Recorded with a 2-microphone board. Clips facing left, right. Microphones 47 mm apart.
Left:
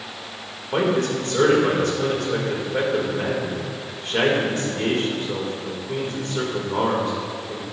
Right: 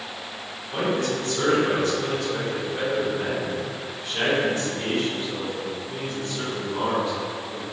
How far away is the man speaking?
About 4 m.